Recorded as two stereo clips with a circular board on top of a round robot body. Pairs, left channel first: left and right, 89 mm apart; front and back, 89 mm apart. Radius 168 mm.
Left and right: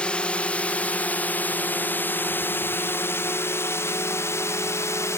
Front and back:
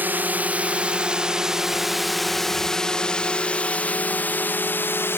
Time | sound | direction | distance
0.0 | a drone | 150° left | ?